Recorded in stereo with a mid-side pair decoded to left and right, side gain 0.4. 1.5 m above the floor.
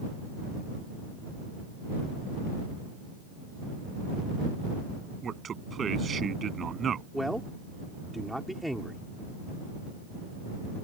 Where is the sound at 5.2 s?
50° right.